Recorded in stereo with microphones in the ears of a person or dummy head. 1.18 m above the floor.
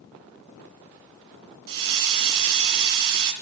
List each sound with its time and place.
1.7 s a hiss: 70° right (ahead or behind), 2.5 m